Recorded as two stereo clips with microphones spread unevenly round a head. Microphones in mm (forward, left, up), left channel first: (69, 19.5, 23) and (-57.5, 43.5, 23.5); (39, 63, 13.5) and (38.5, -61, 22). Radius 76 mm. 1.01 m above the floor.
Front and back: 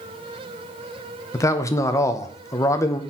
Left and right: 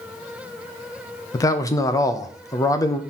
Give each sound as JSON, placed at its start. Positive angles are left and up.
{"t": 1.3, "sound": "a man speaking", "azimuth_deg": 45, "distance_m": 0.9}